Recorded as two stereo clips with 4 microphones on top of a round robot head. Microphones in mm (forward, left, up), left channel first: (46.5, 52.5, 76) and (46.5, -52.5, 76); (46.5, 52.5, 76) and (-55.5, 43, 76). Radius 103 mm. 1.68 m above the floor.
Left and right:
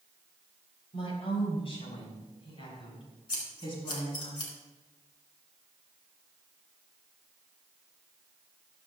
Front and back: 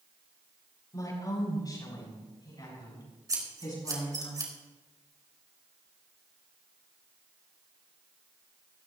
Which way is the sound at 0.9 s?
60° left.